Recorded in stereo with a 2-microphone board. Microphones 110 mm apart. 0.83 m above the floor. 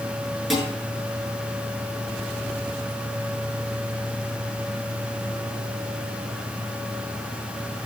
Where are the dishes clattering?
Centre (ahead or behind), 7.5 m.